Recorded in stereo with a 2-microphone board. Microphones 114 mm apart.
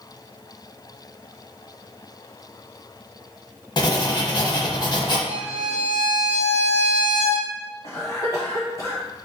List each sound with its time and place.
3.8 s writing: 40° left (ahead or behind), 0.8 m
5.3 s a violin: 65° right (ahead or behind), 0.6 m
7.8 s a cough: 40° left (ahead or behind), 0.9 m